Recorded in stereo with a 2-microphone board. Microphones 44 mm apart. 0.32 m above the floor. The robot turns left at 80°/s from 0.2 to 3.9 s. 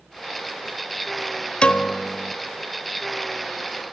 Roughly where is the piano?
Left.